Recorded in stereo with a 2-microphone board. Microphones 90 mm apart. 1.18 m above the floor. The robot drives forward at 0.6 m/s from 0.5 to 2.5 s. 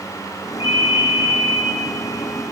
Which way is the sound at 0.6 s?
70° left (ahead or behind).